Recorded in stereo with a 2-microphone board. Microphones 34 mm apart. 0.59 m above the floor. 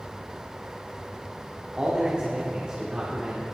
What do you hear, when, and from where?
1.8 s a man speaking: 30° right (ahead or behind), 1.8 m